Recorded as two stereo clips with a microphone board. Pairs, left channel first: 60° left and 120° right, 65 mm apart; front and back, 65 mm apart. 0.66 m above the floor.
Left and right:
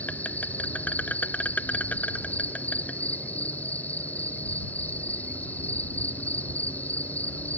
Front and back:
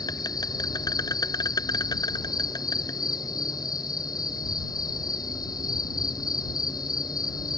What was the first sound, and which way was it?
An insect, 10° right.